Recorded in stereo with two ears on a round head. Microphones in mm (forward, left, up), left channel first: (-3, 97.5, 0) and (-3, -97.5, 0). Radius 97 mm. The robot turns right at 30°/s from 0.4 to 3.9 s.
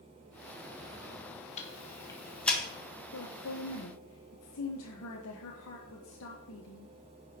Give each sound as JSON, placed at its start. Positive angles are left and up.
{"t": 1.6, "sound": "ticking", "side_deg": 35, "distance_m": 1.7}
{"t": 3.1, "sound": "a woman speaking", "side_deg": 80, "distance_m": 1.4}